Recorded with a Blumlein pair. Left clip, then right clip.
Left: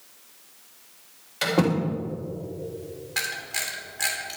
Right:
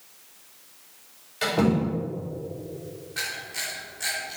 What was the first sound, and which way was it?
A door slam, 15° left.